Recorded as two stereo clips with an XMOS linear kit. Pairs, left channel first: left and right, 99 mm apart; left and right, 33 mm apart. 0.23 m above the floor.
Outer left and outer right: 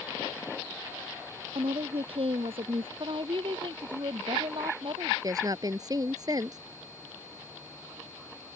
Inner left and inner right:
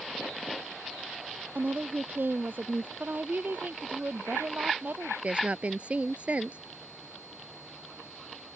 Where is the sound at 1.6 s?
75° right (ahead or behind); by 2.9 s 70° right (ahead or behind).